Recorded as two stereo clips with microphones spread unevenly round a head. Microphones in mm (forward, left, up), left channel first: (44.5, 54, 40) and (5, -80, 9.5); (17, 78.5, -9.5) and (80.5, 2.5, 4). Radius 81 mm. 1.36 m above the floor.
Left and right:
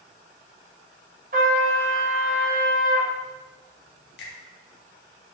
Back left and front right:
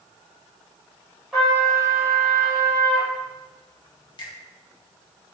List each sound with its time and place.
1.3 s a trumpet: 140° right, 3.5 m
4.2 s a finger snap: 90° left, 2 m